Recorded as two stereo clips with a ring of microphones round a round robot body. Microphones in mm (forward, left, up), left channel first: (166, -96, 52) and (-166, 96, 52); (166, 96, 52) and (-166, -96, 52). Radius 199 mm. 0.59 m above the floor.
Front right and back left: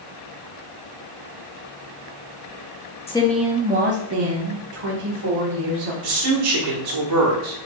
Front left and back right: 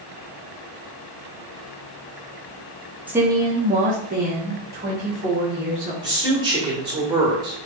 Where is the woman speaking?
70° right, 0.8 m; by 5.9 s 145° left, 2 m.